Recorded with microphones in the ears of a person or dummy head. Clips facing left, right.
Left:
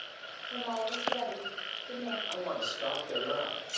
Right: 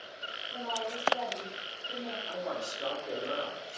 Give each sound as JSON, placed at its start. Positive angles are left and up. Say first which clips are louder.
{"t": 0.5, "sound": "a woman speaking", "louder": "left 2 dB", "side_deg": 45, "distance_m": 1.1}
{"t": 2.3, "sound": "a man speaking", "louder": "even", "side_deg": -40, "distance_m": 1.7}